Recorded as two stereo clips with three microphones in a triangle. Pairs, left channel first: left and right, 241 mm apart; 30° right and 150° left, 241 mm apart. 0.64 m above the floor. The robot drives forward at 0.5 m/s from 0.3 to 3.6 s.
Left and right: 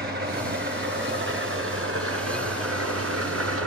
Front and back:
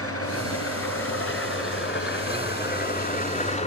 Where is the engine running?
45° right, 2.5 m; by 3.7 s 90° right, 1.6 m.